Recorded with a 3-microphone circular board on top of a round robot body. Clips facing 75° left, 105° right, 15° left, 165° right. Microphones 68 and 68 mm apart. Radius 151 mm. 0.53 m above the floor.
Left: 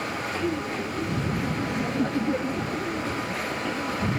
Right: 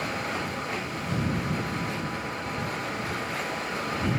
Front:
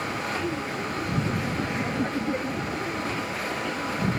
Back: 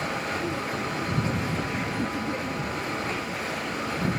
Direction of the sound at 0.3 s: 90° left.